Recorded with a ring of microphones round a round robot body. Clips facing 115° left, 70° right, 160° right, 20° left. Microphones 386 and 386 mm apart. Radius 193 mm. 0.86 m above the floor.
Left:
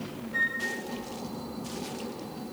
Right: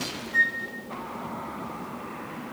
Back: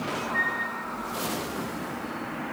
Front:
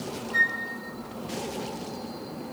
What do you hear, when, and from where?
0.3 s a flute: straight ahead, 5 m